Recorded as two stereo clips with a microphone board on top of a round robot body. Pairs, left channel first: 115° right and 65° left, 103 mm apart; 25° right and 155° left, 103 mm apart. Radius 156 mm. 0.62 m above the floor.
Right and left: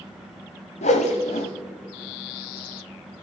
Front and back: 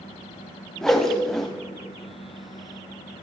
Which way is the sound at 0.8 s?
110° right.